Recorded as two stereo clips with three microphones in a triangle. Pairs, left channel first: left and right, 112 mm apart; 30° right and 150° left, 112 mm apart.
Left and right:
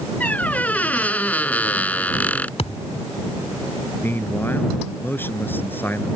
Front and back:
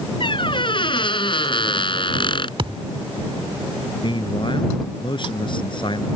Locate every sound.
0.2 s a squeak: 15° left
2.6 s a thud: 110° left
4.0 s a man speaking: 15° left